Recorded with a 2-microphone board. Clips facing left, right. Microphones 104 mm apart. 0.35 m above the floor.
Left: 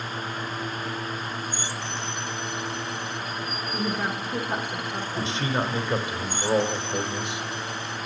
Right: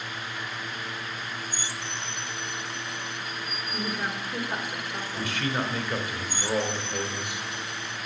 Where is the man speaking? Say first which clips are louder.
Left 2 dB; 20° left (ahead or behind), 1.2 m.